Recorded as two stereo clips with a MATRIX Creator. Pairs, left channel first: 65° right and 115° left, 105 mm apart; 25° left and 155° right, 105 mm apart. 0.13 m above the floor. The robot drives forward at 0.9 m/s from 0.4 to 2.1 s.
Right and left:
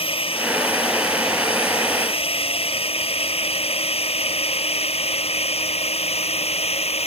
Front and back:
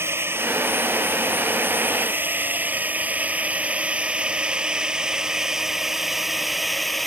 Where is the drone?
90° right; by 7.1 s 65° right.